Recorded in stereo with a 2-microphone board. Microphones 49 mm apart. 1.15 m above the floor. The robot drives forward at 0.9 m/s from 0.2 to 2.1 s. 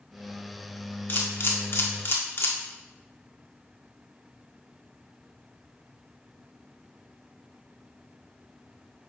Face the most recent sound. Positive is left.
turn(degrees=55)  # may be behind; listen again after turning